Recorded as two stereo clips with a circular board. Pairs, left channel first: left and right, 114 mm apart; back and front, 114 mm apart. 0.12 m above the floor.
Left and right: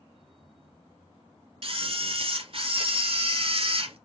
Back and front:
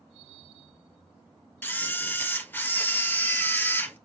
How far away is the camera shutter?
About 1.7 m.